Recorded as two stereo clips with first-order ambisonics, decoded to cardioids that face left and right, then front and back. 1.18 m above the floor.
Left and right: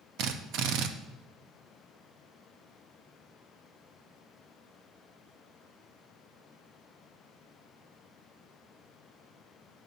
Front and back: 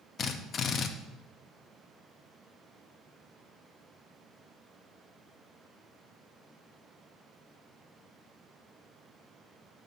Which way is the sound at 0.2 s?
60° right.